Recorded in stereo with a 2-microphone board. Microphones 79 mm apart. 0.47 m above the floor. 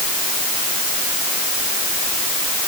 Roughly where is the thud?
No thud in this recording.